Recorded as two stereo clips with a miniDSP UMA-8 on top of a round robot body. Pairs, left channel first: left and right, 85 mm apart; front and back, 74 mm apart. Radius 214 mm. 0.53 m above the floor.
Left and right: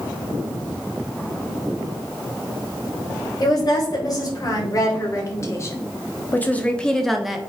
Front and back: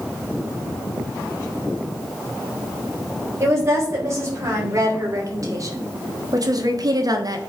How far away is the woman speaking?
About 4 m.